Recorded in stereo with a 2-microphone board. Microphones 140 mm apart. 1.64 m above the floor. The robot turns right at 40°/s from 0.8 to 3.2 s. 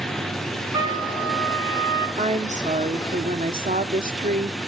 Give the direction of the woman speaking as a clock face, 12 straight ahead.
4 o'clock.